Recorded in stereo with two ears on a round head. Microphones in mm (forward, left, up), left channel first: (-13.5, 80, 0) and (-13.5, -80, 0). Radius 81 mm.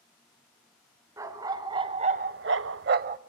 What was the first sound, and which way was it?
A dog barking, 15° right (ahead or behind).